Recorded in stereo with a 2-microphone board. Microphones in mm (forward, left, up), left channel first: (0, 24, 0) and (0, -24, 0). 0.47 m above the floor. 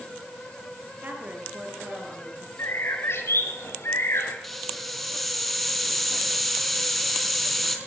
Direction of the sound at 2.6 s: 55° left (ahead or behind).